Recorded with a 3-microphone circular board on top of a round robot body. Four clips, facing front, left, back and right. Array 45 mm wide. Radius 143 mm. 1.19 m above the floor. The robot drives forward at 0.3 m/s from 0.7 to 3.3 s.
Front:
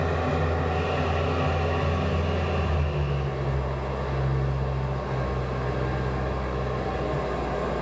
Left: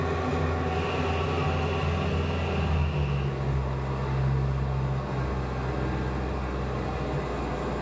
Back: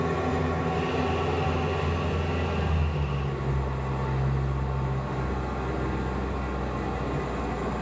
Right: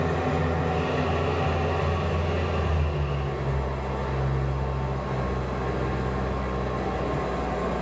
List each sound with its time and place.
0.0 s an engine running: 30° right, 4.5 m; by 7.8 s 40° right, 4 m